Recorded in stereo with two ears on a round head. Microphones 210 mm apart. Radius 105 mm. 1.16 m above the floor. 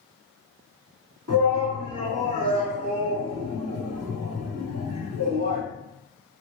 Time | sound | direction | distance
1.3 | a shout | 70° right (ahead or behind) | 1.9 m